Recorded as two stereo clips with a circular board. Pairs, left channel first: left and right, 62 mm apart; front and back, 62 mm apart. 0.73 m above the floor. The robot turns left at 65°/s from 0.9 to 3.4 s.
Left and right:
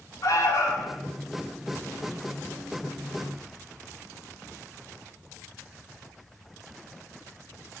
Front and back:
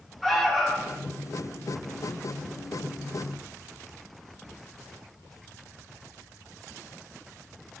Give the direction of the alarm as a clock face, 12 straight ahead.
9 o'clock.